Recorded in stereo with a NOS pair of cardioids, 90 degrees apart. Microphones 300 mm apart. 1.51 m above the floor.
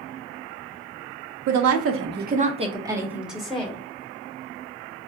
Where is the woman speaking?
65° right, 0.9 m; by 3.8 s 5° left, 1.6 m.